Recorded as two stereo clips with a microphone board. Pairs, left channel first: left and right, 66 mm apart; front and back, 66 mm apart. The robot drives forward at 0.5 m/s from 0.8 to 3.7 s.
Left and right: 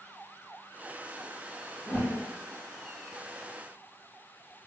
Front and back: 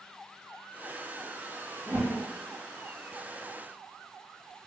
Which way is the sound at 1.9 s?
160° left.